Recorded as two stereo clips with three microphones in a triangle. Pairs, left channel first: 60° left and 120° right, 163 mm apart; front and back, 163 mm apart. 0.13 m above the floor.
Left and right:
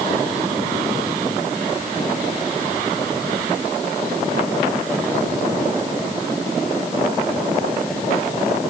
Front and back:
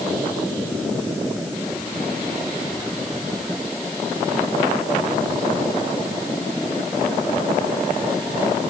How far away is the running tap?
I don't hear a running tap.